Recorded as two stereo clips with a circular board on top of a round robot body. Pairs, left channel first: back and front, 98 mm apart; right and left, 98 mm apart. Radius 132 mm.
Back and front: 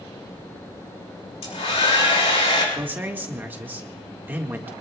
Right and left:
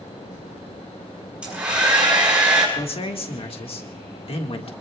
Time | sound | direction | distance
1.4 | a hair dryer | 170° left | 6 m
2.8 | a man speaking | 70° right | 1.8 m